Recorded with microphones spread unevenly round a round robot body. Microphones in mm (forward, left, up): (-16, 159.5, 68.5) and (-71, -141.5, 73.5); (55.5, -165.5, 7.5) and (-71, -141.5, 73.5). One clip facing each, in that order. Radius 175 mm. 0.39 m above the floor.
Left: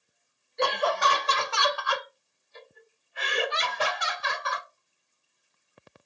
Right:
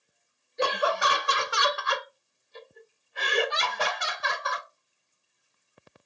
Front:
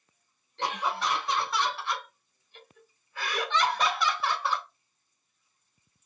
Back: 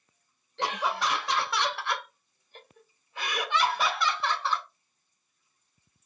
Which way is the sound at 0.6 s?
175° left.